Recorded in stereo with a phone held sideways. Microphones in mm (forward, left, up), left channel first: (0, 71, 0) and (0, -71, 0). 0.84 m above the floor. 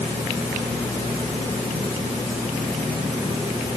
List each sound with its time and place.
Only background noise.